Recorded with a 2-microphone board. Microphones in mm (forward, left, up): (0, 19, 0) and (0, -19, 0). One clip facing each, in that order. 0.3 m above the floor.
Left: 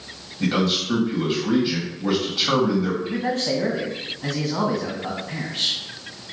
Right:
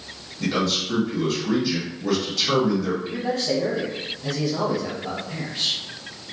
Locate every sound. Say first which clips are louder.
0.4 s a man speaking: left 2 dB; 25° left (ahead or behind), 2 m
3.0 s a man speaking: left 1 dB; 55° left (ahead or behind), 1.7 m